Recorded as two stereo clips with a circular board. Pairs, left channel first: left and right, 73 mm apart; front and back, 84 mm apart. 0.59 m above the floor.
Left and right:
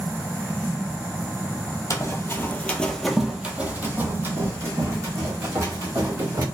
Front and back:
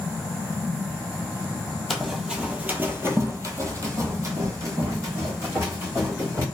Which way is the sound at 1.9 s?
90° left.